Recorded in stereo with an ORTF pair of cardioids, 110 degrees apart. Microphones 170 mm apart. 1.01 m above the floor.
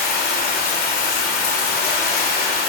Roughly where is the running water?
Ahead left.